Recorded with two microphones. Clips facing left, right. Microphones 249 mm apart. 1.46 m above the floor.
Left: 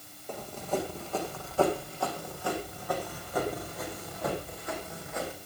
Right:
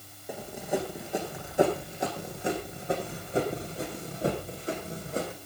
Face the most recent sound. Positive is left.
turn(degrees=-35)  # may be behind; listen again after turning